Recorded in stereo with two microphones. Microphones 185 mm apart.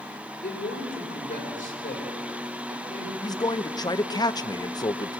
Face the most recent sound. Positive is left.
turn(degrees=20)  # may be behind; listen again after turning